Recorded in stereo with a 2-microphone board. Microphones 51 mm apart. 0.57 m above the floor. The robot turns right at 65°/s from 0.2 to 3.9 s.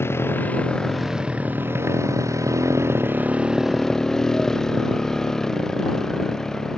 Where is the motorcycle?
130° left; by 6.8 s 10° left.